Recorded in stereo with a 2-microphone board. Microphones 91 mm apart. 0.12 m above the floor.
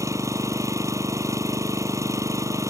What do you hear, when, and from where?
0.0 s an engine running: 35° right (ahead or behind)